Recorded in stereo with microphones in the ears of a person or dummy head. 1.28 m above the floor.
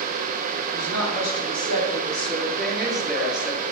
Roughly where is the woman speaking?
Centre.